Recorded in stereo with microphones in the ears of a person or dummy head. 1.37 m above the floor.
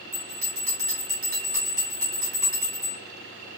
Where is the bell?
45° right (ahead or behind), 1.4 m.